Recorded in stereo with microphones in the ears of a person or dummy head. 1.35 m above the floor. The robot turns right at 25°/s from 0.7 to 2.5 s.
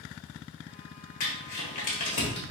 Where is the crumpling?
55° left (ahead or behind), 1.4 m; by 2.4 s 25° left (ahead or behind), 1.4 m.